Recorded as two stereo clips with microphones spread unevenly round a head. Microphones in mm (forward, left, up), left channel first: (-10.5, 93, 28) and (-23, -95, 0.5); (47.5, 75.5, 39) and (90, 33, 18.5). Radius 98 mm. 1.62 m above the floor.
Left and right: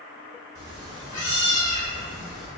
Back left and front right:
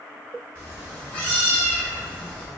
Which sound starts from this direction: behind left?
A cat meowing, at 0.6 s.